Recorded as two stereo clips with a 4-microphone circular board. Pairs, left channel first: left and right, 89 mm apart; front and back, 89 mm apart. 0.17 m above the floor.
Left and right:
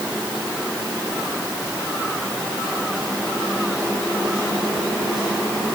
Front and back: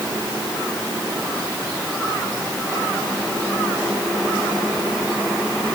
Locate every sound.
Only background noise.